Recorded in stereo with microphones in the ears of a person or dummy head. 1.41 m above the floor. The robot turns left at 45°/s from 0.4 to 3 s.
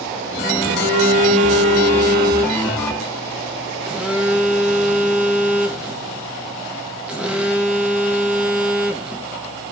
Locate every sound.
0.6 s a phone buzzing: 70° right, 0.5 m; by 9.3 s straight behind, 0.5 m